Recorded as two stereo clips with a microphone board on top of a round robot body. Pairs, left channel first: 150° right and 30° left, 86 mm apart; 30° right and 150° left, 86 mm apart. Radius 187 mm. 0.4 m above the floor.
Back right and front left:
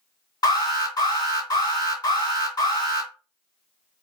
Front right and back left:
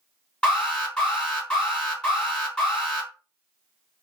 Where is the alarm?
110° right, 2.5 m.